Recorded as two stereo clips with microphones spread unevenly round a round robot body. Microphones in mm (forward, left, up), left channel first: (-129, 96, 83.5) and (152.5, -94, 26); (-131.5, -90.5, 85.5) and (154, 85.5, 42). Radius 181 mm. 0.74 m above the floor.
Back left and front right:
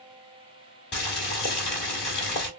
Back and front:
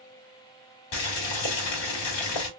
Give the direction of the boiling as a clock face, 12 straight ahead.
5 o'clock.